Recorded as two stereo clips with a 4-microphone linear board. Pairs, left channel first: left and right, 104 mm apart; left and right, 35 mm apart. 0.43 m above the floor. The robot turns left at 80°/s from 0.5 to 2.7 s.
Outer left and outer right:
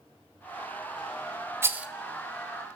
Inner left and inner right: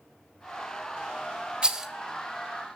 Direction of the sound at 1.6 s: 25° right (ahead or behind).